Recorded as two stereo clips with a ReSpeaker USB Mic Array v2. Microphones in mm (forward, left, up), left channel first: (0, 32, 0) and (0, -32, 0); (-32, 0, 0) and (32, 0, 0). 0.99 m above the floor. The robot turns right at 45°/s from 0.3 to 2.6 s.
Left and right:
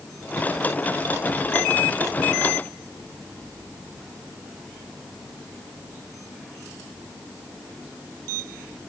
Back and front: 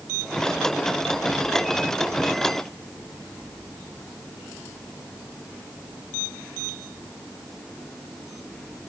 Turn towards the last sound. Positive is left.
No sound to turn to.